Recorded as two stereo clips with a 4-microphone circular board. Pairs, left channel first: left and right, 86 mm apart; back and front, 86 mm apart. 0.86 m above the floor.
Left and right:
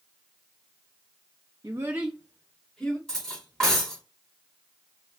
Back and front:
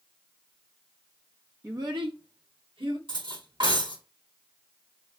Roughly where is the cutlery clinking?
Ahead.